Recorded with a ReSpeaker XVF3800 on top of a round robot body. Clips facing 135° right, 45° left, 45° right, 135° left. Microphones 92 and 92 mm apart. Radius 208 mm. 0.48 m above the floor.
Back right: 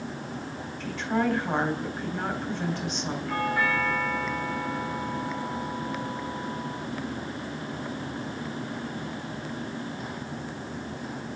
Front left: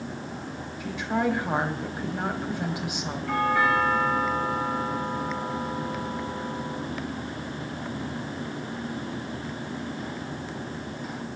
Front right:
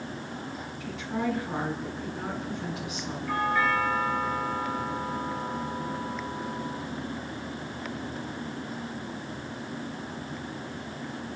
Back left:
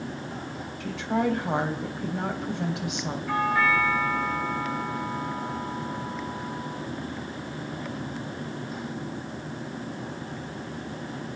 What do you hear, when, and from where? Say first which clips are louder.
0.8 s a woman speaking: even, back left 5 dB; 125° left, 3 m
3.3 s a doorbell: front left 5 dB, back left 2 dB; 60° left, 10 m